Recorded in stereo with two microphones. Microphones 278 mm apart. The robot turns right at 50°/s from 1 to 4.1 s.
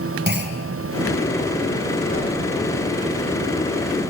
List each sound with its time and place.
0.3 s a clunk: 40° right (ahead or behind), 1.7 m
2.1 s a whoosh: 30° left (ahead or behind), 3 m; by 2.3 s 40° left (ahead or behind), 3 m